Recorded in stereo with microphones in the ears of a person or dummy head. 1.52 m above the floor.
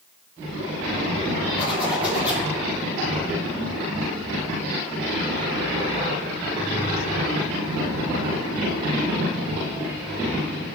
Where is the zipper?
10° right (ahead or behind), 5.5 m.